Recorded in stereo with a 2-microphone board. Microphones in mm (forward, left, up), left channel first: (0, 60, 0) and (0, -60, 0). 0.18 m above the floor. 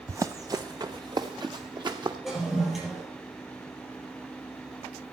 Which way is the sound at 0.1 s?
25° right (ahead or behind).